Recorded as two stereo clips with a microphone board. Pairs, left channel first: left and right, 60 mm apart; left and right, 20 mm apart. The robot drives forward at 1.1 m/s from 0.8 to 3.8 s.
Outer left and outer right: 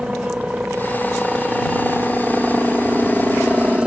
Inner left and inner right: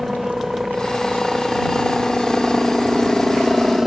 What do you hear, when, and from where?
0.0 s a helicopter: 15° right (ahead or behind); by 3.9 s 20° right (ahead or behind)